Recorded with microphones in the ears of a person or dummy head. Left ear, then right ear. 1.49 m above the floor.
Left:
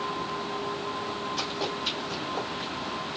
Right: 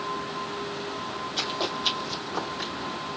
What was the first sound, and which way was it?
Running footsteps, 50° right (ahead or behind).